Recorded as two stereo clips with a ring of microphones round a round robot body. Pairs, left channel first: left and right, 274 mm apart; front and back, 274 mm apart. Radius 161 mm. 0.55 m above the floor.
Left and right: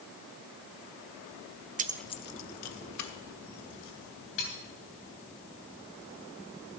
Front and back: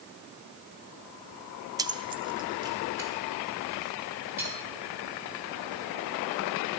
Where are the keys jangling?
115° right, 0.5 m; by 4.5 s 100° left, 3 m.